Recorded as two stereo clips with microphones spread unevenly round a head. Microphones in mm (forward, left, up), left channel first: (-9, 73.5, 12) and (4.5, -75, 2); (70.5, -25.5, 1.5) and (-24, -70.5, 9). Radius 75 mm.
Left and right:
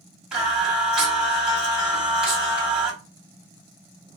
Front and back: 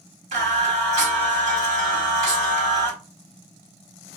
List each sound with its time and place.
0.3 s singing: 170° right, 1.7 m